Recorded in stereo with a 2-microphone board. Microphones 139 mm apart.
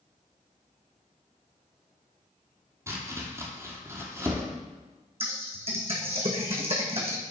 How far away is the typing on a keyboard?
About 1.7 m.